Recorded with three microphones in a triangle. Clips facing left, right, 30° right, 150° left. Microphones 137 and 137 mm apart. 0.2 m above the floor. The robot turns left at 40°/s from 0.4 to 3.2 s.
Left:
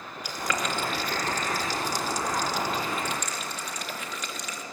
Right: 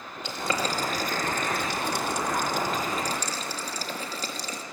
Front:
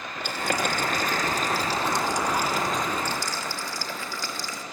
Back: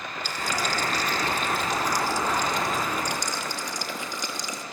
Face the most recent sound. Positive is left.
turn(degrees=-140)